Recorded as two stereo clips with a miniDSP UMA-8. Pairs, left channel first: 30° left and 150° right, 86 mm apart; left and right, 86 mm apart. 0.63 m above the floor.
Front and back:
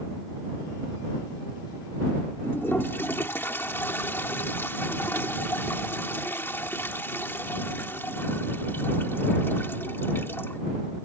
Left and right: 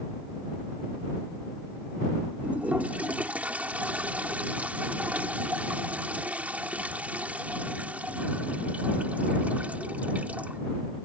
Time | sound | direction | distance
2.4 | a toilet flushing | 25° right | ?